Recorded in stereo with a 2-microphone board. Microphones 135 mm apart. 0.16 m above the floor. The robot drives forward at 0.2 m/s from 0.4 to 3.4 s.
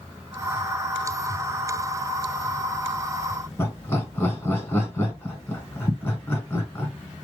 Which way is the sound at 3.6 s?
20° left (ahead or behind).